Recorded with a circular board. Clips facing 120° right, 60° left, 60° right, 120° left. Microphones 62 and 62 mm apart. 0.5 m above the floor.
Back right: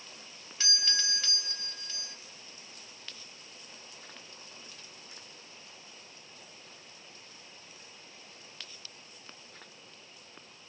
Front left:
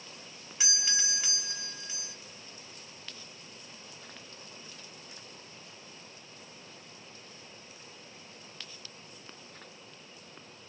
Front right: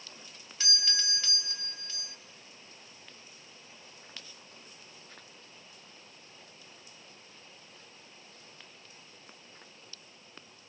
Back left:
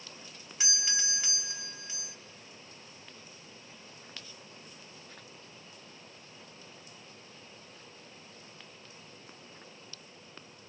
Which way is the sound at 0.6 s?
90° left.